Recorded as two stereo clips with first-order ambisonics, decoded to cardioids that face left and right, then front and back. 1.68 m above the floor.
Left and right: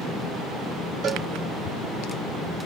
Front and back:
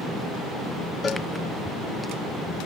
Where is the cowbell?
65° right, 0.9 m.